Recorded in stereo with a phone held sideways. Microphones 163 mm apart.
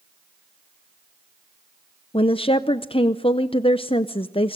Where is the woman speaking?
35° left (ahead or behind), 0.6 m.